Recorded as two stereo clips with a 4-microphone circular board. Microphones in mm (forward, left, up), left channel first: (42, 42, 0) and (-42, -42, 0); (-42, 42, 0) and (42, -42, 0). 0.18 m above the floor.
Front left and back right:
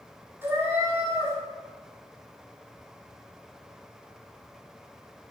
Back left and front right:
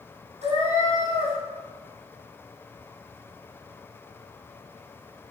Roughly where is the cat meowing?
Ahead right.